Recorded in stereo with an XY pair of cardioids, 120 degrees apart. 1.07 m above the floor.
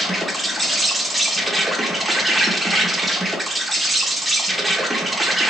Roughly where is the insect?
Ahead.